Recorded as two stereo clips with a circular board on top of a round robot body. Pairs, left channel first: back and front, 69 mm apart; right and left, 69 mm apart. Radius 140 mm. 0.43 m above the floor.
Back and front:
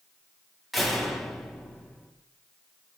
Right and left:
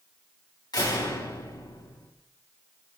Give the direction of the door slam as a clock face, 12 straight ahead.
3 o'clock.